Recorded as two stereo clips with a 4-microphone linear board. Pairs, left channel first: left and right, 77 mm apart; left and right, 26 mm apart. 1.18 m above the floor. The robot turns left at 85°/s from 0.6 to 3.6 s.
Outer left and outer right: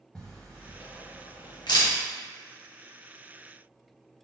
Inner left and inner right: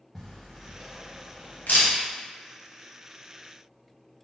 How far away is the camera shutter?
About 1.0 m.